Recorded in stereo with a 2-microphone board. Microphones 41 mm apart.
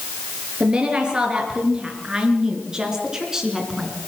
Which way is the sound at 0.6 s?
20° right (ahead or behind).